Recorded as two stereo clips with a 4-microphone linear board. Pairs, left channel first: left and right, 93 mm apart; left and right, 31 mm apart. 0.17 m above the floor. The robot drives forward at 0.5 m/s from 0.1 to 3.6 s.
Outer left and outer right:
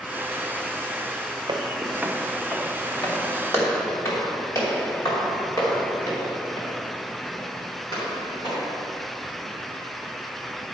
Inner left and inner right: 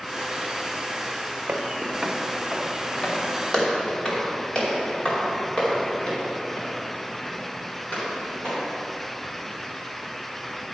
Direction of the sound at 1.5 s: 55° right (ahead or behind).